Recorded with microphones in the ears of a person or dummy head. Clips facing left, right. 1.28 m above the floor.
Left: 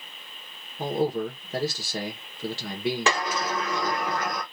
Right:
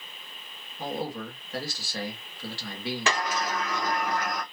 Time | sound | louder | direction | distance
0.8 | a man speaking | left 7 dB | 20° left (ahead or behind) | 0.8 m
3.1 | a sliding door | left 2 dB | 70° left (ahead or behind) | 1.2 m